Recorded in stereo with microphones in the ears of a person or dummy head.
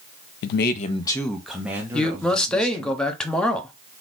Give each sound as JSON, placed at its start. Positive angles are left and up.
{"t": 0.4, "sound": "a man speaking", "side_deg": 65, "distance_m": 0.5}
{"t": 1.9, "sound": "a man speaking", "side_deg": 10, "distance_m": 0.8}